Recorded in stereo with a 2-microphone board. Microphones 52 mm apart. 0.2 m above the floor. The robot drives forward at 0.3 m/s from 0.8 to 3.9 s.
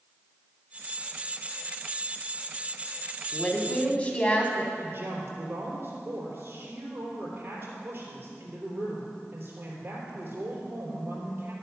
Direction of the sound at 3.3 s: 25° left (ahead or behind).